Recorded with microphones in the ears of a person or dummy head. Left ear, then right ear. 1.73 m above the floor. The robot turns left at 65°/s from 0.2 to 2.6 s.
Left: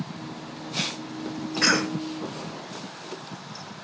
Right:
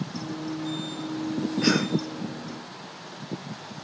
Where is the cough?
60° left (ahead or behind), 2 m; by 2.0 s 80° left, 2 m.